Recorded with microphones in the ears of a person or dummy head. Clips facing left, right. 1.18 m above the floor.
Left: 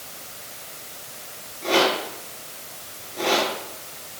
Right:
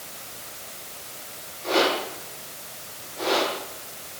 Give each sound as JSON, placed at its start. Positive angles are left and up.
{"t": 1.6, "sound": "a rattle", "side_deg": 55, "distance_m": 9.5}